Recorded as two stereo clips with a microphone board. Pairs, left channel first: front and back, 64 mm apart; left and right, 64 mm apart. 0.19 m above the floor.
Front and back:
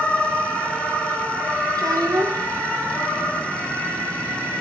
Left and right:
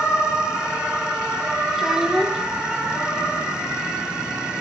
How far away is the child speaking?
About 3.5 m.